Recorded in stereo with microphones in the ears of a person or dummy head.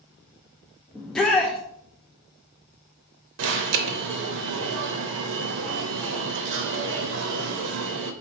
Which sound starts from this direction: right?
An alarm, at 3.4 s.